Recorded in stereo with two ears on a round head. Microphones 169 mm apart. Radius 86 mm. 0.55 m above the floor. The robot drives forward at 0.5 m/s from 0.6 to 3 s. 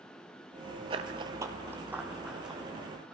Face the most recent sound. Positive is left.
turn(degrees=-5)  # may be behind; listen again after turning